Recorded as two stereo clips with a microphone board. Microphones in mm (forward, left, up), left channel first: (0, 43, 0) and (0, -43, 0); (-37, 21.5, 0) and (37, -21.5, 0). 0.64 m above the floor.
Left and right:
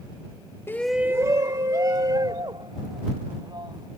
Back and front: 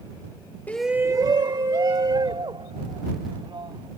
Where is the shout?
105° left; by 3.9 s 55° right.